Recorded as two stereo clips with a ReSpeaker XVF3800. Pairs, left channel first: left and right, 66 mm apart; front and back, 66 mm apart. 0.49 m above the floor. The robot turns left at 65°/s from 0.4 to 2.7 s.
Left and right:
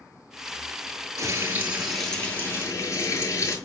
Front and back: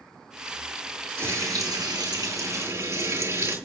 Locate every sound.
1.2 s frying: 125° right, 7.5 m; by 3.6 s 135° left, 7.5 m